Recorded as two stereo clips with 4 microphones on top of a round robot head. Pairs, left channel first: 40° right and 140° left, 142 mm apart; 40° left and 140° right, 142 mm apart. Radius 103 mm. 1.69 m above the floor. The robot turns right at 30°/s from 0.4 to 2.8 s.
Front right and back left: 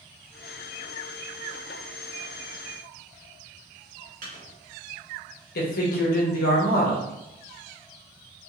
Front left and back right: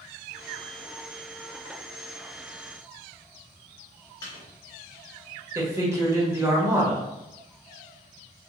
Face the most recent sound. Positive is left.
turn(degrees=-65)